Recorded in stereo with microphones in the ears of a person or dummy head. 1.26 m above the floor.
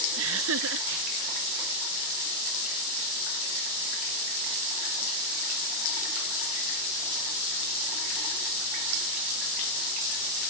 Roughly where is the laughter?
Right.